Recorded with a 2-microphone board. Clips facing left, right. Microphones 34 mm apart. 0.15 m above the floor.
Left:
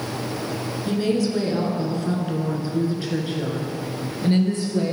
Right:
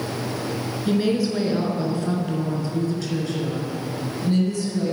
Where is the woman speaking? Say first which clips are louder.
Right 1 dB; 20° right (ahead or behind), 1.7 m; by 4.9 s 45° left (ahead or behind), 2.5 m.